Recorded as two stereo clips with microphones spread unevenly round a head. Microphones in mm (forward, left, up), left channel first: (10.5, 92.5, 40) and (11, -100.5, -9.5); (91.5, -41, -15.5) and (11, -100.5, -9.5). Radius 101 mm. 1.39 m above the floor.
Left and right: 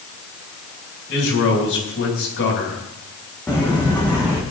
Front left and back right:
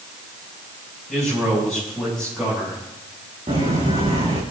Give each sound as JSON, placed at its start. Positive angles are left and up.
{"t": 1.1, "sound": "a man speaking", "azimuth_deg": 125, "distance_m": 8.5}
{"t": 3.5, "sound": "footsteps", "azimuth_deg": 170, "distance_m": 4.5}